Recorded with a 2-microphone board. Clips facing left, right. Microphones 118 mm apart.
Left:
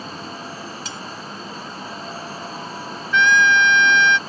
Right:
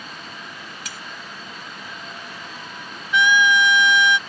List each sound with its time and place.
0.8 s cutlery clinking: 25° left (ahead or behind)
3.1 s a trumpet: 10° right (ahead or behind)